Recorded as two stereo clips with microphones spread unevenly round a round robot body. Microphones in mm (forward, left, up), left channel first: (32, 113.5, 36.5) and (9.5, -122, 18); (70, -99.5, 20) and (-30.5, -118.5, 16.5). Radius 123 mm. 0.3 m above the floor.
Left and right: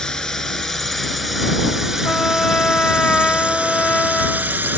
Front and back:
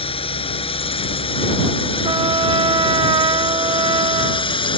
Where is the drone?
5° right; by 4.8 s 15° right.